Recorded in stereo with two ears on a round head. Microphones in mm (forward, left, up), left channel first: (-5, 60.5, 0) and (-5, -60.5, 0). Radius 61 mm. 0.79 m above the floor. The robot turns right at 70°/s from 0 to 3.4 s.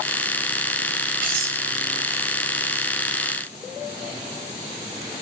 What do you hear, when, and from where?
1.2 s cutlery clinking: 80° right, 4.5 m; by 1.6 s 70° right (ahead or behind), 4.5 m